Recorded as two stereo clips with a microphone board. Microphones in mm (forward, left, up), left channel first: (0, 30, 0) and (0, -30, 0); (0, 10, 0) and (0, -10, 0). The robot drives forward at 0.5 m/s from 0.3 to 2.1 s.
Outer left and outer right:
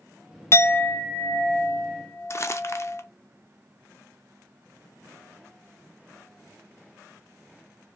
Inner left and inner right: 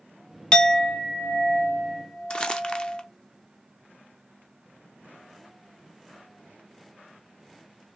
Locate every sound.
0.5 s a clink: 45° left (ahead or behind), 0.5 m; by 3.0 s 20° left (ahead or behind), 1.2 m
2.3 s crumpling: 50° left (ahead or behind), 0.7 m